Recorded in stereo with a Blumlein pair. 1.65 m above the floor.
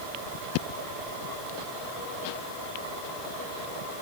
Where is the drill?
No drill in this recording.